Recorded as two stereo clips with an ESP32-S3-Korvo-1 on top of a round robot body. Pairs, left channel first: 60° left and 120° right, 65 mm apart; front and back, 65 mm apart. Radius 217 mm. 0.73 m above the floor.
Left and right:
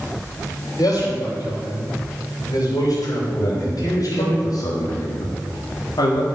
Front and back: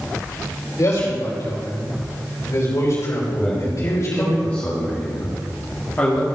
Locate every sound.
0.8 s a man speaking: 40° left, 4.5 m
3.4 s a man speaking: 65° left, 2.0 m